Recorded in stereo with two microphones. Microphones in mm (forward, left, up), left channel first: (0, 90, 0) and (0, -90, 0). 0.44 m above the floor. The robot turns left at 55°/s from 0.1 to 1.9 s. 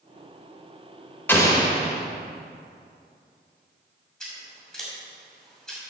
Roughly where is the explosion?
Behind.